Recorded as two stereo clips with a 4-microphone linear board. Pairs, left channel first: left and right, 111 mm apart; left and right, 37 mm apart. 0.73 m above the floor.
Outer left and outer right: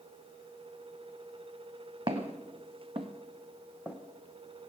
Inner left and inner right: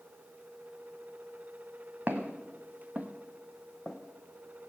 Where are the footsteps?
50° right (ahead or behind), 1.9 m; by 4.0 s 10° right (ahead or behind), 1.8 m.